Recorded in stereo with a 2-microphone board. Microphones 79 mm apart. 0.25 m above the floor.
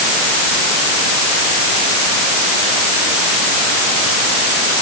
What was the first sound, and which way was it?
Only background noise.